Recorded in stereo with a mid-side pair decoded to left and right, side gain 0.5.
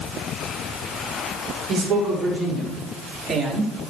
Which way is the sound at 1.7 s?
60° right.